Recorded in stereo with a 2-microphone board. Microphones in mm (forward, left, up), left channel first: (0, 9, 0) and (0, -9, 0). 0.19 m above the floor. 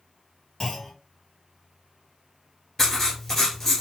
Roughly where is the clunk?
Centre.